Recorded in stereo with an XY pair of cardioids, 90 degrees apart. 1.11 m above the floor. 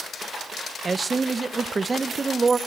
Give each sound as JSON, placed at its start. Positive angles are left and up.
{"t": 0.8, "sound": "a man speaking", "azimuth_deg": -30, "distance_m": 0.9}